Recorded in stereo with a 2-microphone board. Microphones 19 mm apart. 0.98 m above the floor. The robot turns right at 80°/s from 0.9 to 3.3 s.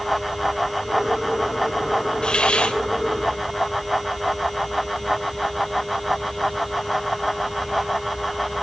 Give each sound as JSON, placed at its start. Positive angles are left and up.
{"t": 2.2, "sound": "a hiss", "azimuth_deg": 45, "distance_m": 2.5}